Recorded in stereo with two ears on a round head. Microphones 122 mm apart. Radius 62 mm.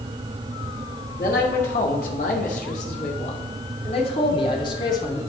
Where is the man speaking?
70° left (ahead or behind), 2.5 m; by 5.2 s 25° left (ahead or behind), 2.5 m.